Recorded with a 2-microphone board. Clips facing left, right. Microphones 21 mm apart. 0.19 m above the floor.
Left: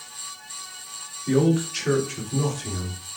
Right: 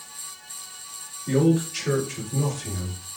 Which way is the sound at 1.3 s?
15° left (ahead or behind).